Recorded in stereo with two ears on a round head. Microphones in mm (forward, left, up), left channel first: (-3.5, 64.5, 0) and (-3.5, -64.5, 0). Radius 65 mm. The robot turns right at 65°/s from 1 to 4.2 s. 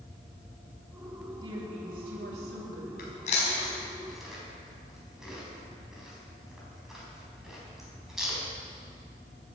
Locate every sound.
1.4 s a woman speaking: 150° right, 3 m; by 2.9 s 55° right, 3 m
3.0 s chewing: 70° left (ahead or behind), 4 m; by 8.4 s 5° right (ahead or behind), 4 m